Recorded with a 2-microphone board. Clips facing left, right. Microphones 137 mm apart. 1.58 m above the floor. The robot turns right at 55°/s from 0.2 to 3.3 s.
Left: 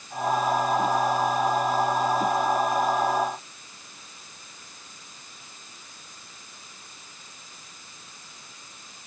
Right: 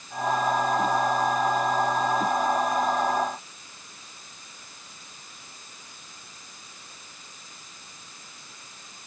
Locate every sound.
Only background noise.